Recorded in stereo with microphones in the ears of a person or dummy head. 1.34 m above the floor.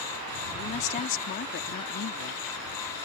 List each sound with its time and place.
0.5 s a woman speaking: 40° left (ahead or behind); by 3.1 s 75° left (ahead or behind)